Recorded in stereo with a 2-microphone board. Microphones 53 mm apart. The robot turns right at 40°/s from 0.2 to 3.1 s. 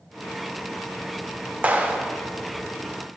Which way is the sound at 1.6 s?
30° right (ahead or behind).